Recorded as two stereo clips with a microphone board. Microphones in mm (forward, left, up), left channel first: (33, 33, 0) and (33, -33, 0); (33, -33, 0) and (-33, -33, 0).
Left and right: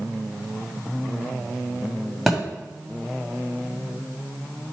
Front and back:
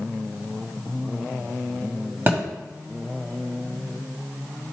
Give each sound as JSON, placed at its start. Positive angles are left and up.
{"t": 2.3, "sound": "a thud", "azimuth_deg": 180, "distance_m": 1.6}